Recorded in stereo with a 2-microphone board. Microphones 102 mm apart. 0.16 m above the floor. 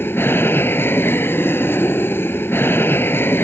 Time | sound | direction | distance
0.0 | an aircraft | 20° left (ahead or behind) | ?